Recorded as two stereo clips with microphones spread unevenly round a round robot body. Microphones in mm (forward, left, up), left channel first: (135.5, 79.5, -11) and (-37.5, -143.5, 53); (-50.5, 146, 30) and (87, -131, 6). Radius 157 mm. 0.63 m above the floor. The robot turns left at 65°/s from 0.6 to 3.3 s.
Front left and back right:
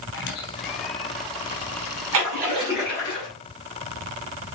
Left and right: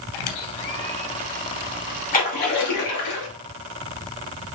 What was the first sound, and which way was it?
A squeak, 110° left.